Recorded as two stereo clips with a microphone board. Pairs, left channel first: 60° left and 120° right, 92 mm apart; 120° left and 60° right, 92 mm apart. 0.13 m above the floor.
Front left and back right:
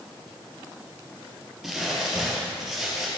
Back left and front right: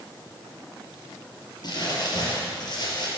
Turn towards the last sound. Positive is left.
turn(degrees=155)